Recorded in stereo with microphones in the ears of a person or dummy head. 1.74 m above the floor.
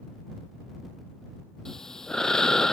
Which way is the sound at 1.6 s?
10° left (ahead or behind).